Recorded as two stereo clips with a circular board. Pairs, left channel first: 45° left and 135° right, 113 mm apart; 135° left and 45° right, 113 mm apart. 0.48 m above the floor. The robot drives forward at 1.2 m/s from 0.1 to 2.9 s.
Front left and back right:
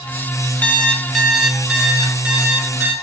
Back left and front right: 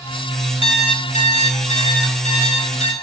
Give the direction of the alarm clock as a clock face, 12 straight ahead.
8 o'clock.